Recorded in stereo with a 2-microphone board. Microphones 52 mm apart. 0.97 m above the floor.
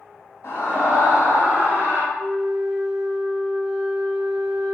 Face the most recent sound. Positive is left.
turn(degrees=-15)  # may be behind; listen again after turning